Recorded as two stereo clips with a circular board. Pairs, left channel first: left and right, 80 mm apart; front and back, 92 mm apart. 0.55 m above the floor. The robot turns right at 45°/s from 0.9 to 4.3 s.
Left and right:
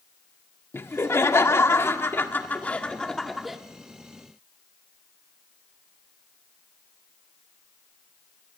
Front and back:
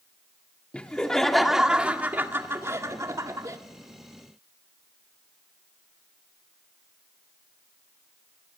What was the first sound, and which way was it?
Laughter, 70° left.